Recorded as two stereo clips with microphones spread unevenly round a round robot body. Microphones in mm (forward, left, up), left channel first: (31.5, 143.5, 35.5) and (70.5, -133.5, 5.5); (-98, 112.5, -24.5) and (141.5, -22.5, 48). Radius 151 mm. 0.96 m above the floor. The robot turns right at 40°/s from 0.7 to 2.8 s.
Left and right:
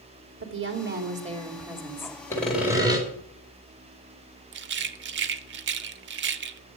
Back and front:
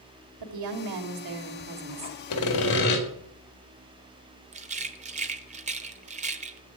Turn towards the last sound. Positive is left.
turn(degrees=-50)